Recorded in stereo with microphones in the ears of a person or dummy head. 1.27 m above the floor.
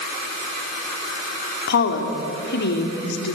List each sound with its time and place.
1.7 s a woman speaking: 60° left (ahead or behind), 3.5 m